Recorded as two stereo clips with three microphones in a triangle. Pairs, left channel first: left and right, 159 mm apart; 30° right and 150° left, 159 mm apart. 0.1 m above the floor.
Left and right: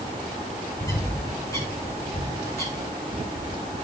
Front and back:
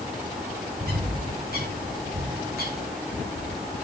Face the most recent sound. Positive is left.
turn(degrees=160)